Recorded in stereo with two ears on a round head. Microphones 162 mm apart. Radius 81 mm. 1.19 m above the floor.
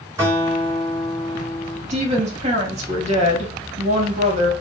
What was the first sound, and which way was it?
A guitar, 15° right (ahead or behind).